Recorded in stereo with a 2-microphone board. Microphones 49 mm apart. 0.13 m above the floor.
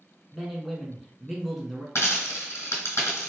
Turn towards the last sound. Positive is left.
turn(degrees=65)  # may be behind; listen again after turning